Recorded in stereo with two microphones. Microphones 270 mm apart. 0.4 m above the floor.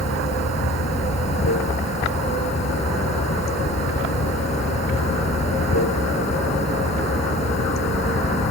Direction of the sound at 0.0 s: 75° left (ahead or behind).